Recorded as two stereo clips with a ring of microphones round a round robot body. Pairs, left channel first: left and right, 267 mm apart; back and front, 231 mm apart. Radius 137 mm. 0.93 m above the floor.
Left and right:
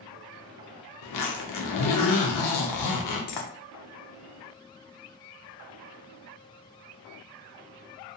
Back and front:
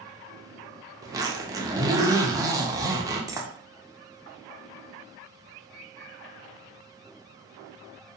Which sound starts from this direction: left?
A zipper, at 1.0 s.